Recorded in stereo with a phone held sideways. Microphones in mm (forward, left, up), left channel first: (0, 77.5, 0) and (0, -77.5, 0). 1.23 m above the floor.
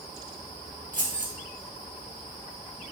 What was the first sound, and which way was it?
Keys jangling, 60° right (ahead or behind).